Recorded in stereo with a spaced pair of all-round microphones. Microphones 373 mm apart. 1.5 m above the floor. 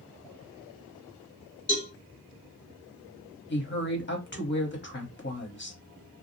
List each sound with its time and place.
1.7 s a cowbell: 35° left (ahead or behind), 1.3 m
3.5 s a woman speaking: 30° left (ahead or behind), 1.0 m